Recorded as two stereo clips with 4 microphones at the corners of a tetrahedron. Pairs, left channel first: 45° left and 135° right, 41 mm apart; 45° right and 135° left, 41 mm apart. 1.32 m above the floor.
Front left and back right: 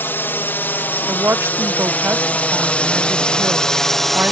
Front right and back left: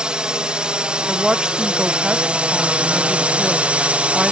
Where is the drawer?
I don't hear a drawer.